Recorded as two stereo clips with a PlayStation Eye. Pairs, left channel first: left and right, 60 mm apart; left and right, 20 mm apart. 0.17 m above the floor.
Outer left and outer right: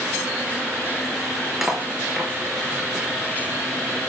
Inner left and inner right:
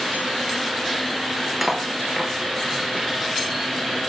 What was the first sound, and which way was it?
Cutlery clinking, 5° right (ahead or behind).